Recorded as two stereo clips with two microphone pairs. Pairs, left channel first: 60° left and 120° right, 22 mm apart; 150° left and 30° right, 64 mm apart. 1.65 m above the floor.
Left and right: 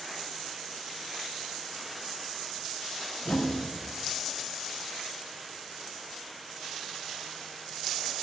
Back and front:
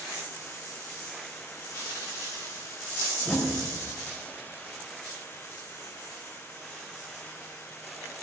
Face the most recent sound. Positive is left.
turn(degrees=80)